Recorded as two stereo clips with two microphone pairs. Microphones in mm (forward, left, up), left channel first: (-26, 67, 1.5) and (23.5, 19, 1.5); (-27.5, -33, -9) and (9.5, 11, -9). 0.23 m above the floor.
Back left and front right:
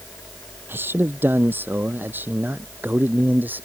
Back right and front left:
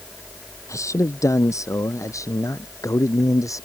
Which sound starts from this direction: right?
A man speaking, at 0.7 s.